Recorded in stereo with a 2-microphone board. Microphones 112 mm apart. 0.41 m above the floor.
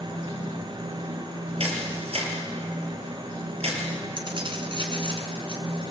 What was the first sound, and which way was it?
A camera shutter, 65° right (ahead or behind).